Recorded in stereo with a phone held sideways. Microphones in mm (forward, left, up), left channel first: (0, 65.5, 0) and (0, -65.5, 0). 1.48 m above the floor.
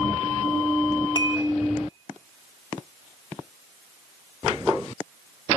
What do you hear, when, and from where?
1.1 s dishes clattering: 35° left (ahead or behind), 1.5 m